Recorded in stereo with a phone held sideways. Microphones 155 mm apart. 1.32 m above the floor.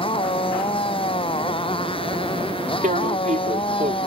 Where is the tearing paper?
55° right (ahead or behind).